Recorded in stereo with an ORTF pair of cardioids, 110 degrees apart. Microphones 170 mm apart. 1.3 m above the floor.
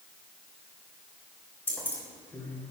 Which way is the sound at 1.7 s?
10° left.